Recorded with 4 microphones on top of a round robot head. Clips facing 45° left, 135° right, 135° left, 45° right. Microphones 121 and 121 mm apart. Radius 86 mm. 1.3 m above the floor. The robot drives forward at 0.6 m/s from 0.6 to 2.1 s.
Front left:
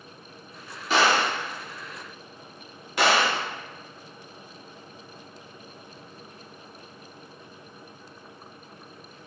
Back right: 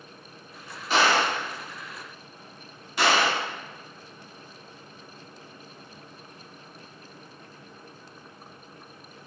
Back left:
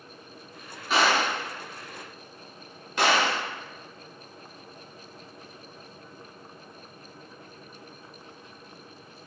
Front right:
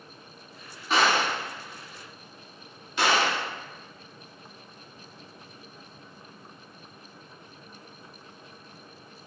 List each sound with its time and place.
0.9 s a gunshot: 45° left, 1.1 m; by 3.4 s 85° left, 0.8 m